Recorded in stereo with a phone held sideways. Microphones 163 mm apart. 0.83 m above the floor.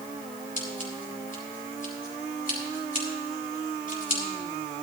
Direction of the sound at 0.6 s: 55° left (ahead or behind).